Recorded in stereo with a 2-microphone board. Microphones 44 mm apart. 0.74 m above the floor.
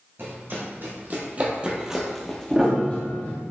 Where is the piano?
15° right (ahead or behind), 0.8 m.